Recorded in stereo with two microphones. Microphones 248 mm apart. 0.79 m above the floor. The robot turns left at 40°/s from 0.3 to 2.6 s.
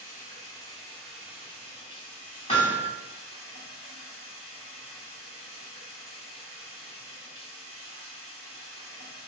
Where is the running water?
35° left, 1.1 m; by 9.3 s 60° right, 1.1 m.